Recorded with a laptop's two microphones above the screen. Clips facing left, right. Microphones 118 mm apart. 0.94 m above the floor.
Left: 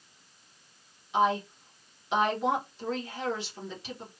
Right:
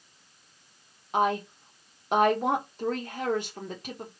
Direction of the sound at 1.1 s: 50° right (ahead or behind).